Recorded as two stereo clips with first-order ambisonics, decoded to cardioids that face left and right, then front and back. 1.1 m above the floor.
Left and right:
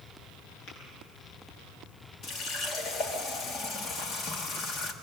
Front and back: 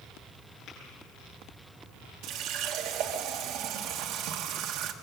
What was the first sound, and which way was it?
Tapping, 50° left.